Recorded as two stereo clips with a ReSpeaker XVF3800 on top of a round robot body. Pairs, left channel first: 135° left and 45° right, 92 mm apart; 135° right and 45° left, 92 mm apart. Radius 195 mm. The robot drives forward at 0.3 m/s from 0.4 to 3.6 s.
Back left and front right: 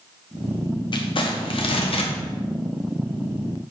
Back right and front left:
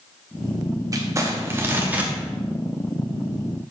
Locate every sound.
0.9 s crumpling: 100° left, 0.9 m; by 2.1 s 120° left, 1.0 m